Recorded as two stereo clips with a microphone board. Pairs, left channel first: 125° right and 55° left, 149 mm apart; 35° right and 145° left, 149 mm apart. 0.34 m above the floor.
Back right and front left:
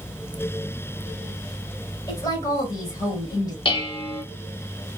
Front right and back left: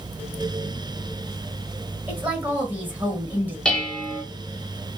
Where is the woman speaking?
150° right, 1.0 m.